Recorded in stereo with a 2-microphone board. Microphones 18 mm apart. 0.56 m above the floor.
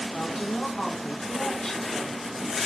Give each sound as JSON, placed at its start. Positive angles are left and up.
{"t": 0.1, "sound": "a woman speaking", "side_deg": 45, "distance_m": 4.5}